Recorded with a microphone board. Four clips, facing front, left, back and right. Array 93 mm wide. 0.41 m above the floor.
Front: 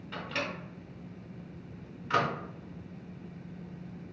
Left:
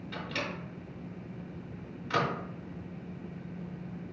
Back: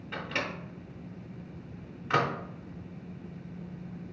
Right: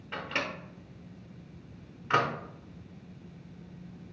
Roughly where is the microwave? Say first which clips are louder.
Right 3 dB, back 1 dB; behind right.